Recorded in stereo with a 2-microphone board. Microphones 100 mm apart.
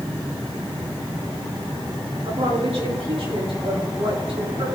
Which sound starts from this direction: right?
A woman speaking, at 2.2 s.